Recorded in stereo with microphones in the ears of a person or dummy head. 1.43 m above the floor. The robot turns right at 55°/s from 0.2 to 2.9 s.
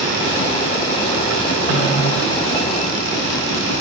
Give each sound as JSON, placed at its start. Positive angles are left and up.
{"t": 1.7, "sound": "a snare drum", "side_deg": -55, "distance_m": 1.7}